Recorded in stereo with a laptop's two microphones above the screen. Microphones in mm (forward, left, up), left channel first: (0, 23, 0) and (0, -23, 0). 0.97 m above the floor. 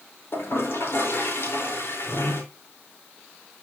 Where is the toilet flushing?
60° left (ahead or behind), 3.5 m.